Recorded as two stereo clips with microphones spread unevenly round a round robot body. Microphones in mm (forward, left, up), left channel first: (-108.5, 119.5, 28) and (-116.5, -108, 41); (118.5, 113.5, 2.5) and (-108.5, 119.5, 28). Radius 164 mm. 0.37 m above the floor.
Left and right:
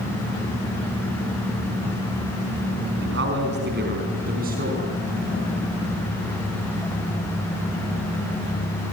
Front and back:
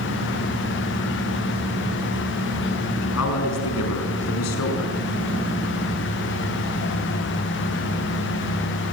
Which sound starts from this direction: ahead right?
A man speaking, at 3.0 s.